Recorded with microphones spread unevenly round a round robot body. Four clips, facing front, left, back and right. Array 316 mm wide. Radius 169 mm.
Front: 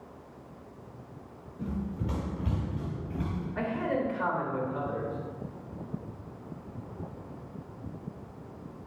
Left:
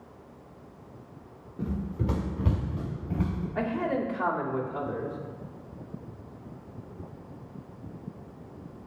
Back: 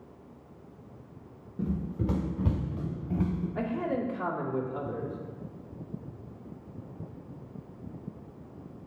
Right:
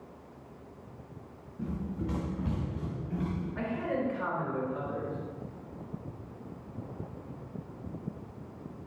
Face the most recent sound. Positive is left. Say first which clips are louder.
# left 5 dB, front 2 dB
turn(degrees=145)